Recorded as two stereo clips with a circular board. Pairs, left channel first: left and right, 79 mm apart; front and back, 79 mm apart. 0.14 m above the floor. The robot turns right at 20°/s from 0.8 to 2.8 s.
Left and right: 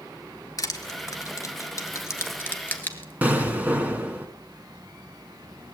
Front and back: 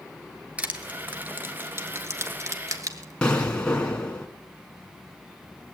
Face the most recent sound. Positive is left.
turn(degrees=-55)